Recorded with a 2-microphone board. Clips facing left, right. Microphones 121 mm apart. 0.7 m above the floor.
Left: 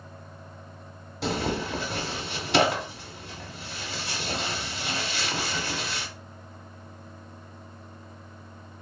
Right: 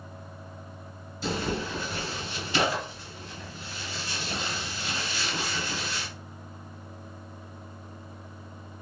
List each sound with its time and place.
1.2 s tearing paper: 70° left (ahead or behind), 0.7 m